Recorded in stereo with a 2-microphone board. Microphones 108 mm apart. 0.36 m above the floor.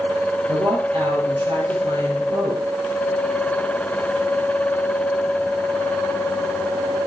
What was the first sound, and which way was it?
A woman speaking, 60° right (ahead or behind).